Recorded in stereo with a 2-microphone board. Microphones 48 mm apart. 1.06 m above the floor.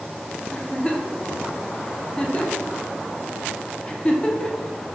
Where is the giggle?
20° left (ahead or behind), 0.5 m.